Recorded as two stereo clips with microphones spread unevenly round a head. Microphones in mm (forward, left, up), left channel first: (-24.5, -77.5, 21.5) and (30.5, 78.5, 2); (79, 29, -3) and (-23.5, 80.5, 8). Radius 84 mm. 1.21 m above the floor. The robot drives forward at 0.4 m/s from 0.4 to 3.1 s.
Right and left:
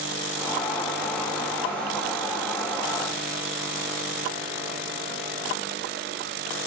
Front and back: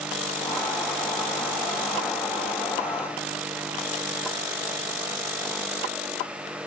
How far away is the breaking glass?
No breaking glass in this recording.